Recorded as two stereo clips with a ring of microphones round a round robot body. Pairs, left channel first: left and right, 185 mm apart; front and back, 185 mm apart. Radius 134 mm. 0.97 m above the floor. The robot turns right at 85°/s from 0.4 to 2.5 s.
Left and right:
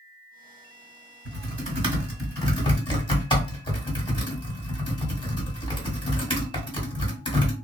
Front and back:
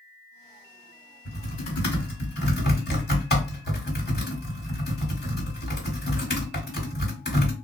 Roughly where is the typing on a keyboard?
Right.